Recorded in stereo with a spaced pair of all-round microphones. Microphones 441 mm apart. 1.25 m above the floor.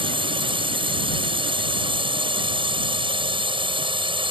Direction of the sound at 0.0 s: 10° right (ahead or behind).